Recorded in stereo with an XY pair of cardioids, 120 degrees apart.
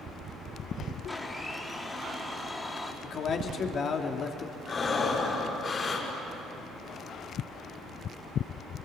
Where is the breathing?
30° left, 6.5 m.